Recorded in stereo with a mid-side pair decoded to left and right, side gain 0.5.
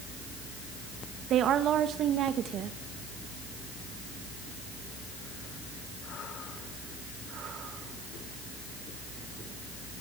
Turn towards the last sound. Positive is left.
turn(degrees=-60)